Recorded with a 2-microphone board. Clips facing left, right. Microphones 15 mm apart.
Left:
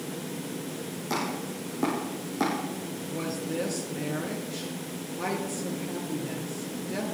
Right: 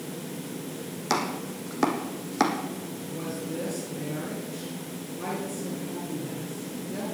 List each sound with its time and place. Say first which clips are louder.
1.1 s chopping: right 3 dB; 70° right (ahead or behind), 2.5 m
3.1 s a woman speaking: left 2 dB; 25° left (ahead or behind), 3.5 m